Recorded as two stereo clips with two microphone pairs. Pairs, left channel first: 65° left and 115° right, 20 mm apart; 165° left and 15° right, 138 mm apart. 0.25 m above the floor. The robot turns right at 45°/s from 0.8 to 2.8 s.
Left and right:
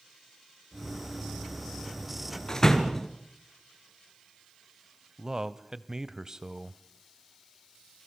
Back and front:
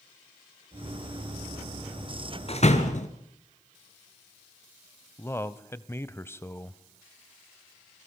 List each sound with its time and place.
2.5 s a door slam: 125° left, 2.5 m; by 3.1 s 140° left, 2.5 m
5.2 s a man speaking: 145° right, 1.0 m